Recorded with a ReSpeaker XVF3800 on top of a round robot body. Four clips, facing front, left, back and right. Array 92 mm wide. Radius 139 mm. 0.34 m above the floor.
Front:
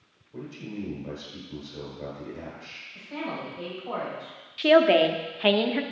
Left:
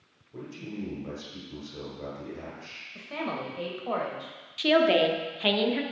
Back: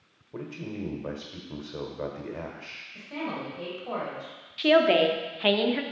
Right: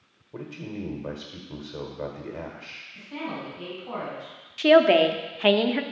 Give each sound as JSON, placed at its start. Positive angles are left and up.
{"t": 0.3, "sound": "a man speaking", "azimuth_deg": -135, "distance_m": 1.6}
{"t": 3.0, "sound": "a man speaking", "azimuth_deg": 100, "distance_m": 2.5}
{"t": 4.6, "sound": "a woman speaking", "azimuth_deg": -70, "distance_m": 0.9}